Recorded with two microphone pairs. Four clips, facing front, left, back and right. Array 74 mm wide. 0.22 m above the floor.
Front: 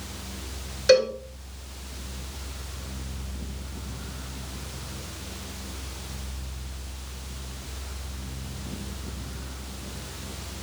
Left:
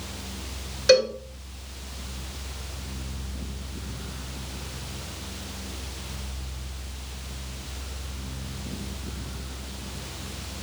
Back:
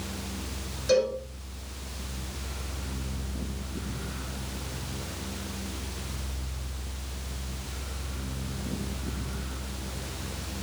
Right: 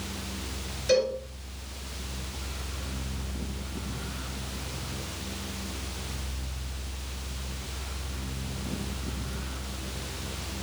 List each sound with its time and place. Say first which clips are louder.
0.9 s a cowbell: left 5 dB, front 5 dB; 60° left, 1.9 m